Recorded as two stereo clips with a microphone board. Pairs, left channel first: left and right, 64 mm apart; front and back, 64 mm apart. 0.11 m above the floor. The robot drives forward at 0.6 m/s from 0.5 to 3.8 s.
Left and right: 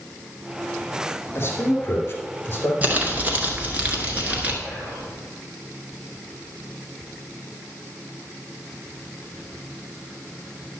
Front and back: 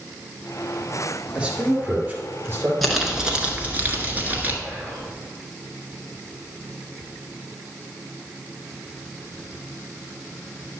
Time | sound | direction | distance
1.4 | a man speaking | 115° left | 2.0 m
2.8 | crumpling | 85° right | 1.2 m
4.6 | whispering | 135° right | 2 m